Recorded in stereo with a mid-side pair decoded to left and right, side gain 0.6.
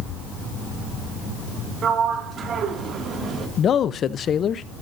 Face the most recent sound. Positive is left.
turn(degrees=45)